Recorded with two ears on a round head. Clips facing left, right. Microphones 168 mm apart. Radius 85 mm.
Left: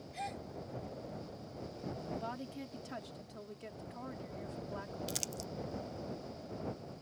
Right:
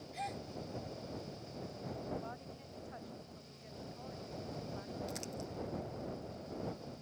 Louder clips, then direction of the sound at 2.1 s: Left 3 dB; 75° left (ahead or behind).